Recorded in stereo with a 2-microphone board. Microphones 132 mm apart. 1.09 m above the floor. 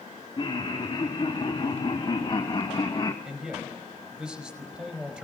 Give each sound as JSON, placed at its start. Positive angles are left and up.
{"t": 0.4, "sound": "laughter", "side_deg": 40, "distance_m": 2.5}
{"t": 3.2, "sound": "a man speaking", "side_deg": -5, "distance_m": 4.5}